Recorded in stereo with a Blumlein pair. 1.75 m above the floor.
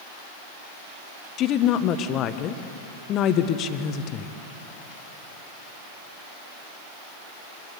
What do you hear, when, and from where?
1.4 s a woman speaking: 30° left, 1.3 m